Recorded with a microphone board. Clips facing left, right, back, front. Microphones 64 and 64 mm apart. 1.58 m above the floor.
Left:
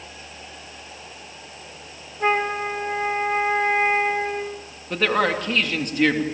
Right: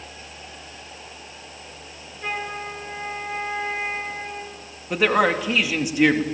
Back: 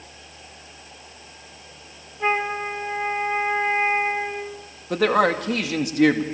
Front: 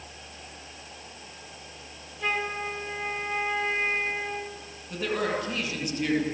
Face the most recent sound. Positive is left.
turn(degrees=-175)